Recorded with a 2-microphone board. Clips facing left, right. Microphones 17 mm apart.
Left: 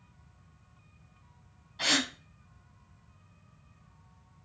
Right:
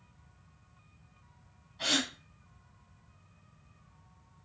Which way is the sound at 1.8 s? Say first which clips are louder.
Left 2 dB; 35° left (ahead or behind).